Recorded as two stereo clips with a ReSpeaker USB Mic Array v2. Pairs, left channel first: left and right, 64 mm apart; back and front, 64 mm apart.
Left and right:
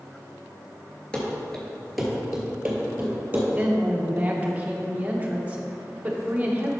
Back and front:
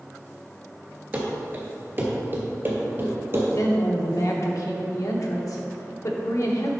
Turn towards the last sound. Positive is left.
turn(degrees=-155)